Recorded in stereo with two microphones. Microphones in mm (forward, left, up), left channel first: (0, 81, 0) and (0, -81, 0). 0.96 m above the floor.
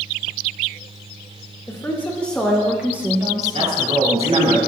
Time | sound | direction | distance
1.7 | a woman speaking | 20° left (ahead or behind) | 1.6 m
3.5 | a man speaking | 40° right (ahead or behind) | 2.5 m